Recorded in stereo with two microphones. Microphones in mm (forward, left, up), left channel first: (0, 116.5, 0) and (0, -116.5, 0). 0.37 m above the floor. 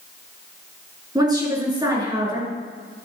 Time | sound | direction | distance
1.1 | a woman speaking | 15° right (ahead or behind) | 4 m